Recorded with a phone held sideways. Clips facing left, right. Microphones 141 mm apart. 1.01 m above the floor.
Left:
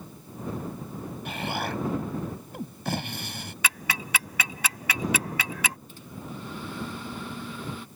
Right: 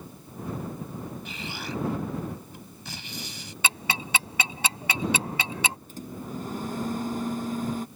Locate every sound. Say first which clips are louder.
1.2 s an explosion: left 5 dB; 65° left (ahead or behind)
3.6 s ticking: right 2 dB; 30° right (ahead or behind)
5.9 s a microwave: right 4 dB; 45° right (ahead or behind)